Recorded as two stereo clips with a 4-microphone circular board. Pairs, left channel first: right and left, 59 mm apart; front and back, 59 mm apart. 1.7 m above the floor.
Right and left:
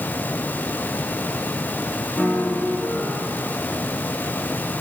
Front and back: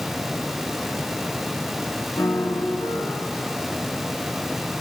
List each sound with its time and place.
2.2 s a piano: straight ahead, 6.5 m